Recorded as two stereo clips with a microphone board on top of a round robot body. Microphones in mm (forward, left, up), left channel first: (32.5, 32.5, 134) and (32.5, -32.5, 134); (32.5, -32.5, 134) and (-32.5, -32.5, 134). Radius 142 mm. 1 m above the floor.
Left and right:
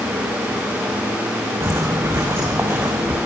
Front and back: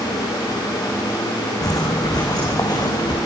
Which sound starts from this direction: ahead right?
Footsteps, at 1.6 s.